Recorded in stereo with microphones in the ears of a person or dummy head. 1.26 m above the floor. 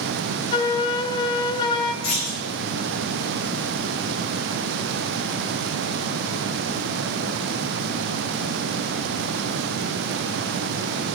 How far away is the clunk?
About 4.5 m.